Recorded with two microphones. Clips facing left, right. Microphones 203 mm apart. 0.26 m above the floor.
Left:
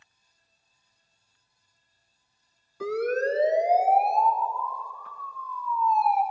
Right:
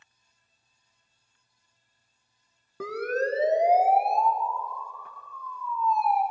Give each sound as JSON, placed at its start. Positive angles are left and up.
{"t": 2.8, "sound": "a siren", "side_deg": -60, "distance_m": 2.5}